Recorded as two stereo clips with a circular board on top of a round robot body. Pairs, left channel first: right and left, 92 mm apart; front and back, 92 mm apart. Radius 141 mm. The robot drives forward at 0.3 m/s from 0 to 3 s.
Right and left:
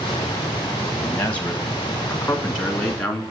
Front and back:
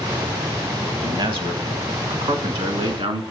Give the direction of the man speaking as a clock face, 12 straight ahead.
5 o'clock.